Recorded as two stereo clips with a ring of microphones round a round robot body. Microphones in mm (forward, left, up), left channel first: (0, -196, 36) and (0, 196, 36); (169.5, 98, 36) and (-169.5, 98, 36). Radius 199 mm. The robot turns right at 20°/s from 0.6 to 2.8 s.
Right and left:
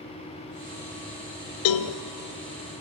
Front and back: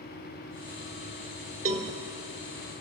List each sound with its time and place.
1.6 s a cowbell: 110° right, 1.1 m; by 2.0 s 100° right, 1.1 m